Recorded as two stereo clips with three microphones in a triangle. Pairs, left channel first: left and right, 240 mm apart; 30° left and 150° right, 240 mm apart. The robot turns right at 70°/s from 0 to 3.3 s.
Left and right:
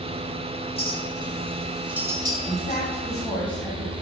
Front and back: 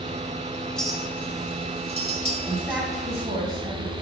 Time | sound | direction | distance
0.8 | a clink | 110° left | 0.9 m
2.5 | a woman speaking | 115° left | 1.4 m